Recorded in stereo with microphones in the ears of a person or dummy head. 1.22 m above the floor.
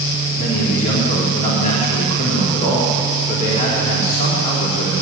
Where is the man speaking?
40° left (ahead or behind), 3.5 m.